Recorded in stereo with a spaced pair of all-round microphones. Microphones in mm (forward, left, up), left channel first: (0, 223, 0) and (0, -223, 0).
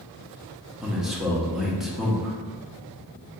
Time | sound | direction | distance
0.8 | a man speaking | centre (ahead or behind) | 1.0 m